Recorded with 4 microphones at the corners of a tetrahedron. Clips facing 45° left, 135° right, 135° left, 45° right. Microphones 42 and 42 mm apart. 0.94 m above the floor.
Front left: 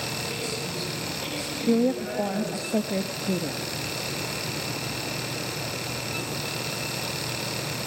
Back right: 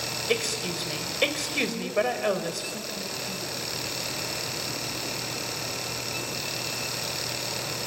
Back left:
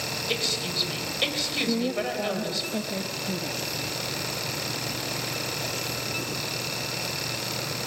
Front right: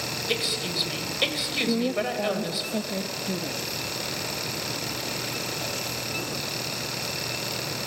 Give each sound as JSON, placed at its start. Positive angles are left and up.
{"t": 0.3, "sound": "a woman speaking", "azimuth_deg": -125, "distance_m": 4.0}
{"t": 1.7, "sound": "a woman speaking", "azimuth_deg": 35, "distance_m": 1.0}